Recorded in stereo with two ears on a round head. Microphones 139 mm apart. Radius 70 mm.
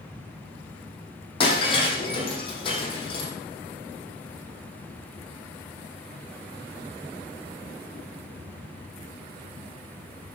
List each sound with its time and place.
1.4 s breaking glass: 35° left (ahead or behind), 5.5 m